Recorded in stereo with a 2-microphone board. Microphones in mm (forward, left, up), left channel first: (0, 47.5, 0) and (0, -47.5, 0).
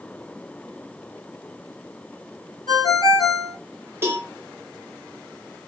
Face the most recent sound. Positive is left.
turn(degrees=-25)  # may be behind; listen again after turning